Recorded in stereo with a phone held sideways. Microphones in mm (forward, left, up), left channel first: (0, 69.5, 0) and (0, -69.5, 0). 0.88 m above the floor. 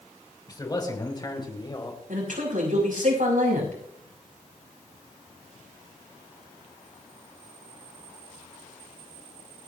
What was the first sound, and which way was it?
A man speaking, 30° left (ahead or behind).